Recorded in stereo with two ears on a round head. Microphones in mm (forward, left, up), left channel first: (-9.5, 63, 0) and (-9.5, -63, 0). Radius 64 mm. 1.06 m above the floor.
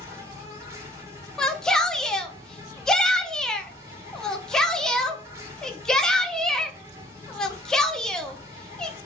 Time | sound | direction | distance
0.0 | an insect | 20° right (ahead or behind) | 1.1 m
1.4 | a shout | 5° left (ahead or behind) | 0.5 m